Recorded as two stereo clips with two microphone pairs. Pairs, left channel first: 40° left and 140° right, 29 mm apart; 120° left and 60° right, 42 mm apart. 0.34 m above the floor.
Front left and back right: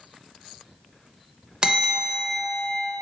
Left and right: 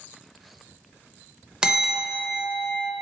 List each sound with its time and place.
1.6 s a bell: 110° right, 0.6 m